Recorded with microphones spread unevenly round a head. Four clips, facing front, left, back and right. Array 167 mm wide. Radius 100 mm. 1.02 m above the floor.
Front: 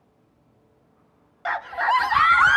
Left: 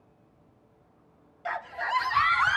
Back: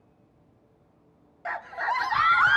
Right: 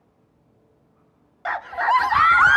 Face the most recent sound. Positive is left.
turn(degrees=-50)